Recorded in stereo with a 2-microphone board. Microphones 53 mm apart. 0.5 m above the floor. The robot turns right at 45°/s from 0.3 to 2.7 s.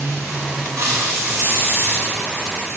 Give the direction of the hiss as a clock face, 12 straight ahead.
3 o'clock.